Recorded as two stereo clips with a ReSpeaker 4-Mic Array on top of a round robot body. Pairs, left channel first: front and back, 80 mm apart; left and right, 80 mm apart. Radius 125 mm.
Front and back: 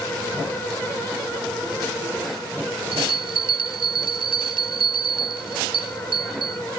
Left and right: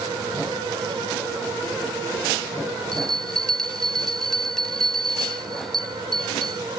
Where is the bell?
175° left.